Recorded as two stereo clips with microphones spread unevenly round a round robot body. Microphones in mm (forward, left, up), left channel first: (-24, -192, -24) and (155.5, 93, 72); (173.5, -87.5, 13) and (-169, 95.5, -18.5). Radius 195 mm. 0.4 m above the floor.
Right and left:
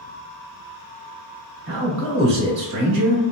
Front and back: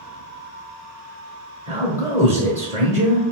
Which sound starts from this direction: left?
A man speaking, at 1.7 s.